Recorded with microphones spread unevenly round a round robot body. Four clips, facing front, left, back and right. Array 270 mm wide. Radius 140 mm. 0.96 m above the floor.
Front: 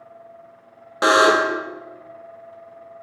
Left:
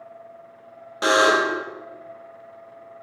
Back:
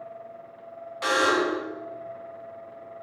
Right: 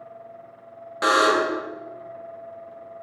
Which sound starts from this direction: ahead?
A buzzer, at 1.0 s.